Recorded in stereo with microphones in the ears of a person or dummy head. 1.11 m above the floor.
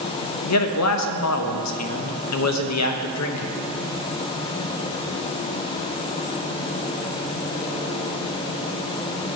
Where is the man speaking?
80° left, 0.8 m.